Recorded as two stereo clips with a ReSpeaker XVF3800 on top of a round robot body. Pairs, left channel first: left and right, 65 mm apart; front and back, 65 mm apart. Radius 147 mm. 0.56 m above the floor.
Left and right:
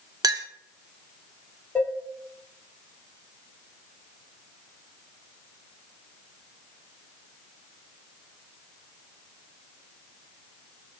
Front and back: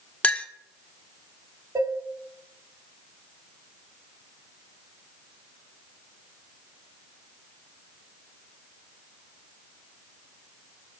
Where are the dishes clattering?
160° left, 1.1 m.